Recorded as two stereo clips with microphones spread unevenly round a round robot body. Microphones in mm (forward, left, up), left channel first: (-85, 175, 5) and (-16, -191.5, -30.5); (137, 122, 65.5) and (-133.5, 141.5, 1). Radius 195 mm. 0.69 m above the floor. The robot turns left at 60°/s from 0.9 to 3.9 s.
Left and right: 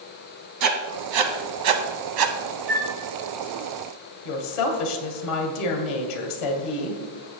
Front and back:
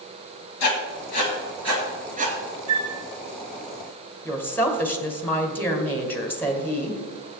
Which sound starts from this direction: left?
A woman speaking, at 4.2 s.